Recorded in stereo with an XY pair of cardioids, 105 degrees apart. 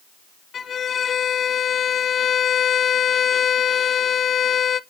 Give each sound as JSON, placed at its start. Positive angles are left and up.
{"t": 0.5, "sound": "a violin", "azimuth_deg": 50, "distance_m": 0.6}